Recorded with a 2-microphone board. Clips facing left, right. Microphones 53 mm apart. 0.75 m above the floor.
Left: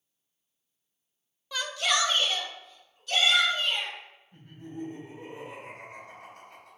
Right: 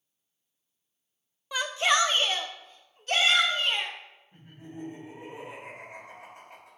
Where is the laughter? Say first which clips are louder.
Left 3 dB; 25° right (ahead or behind), 3 m.